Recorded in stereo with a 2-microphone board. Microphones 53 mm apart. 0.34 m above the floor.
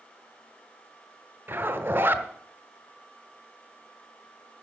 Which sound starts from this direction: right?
A zipper, at 1.5 s.